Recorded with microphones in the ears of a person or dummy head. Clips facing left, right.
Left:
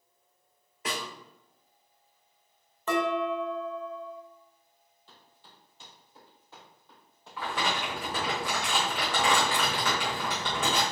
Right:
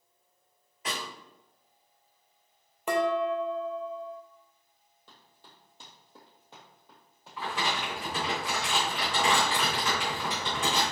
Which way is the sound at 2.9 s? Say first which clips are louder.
Right 1 dB; 10° right (ahead or behind).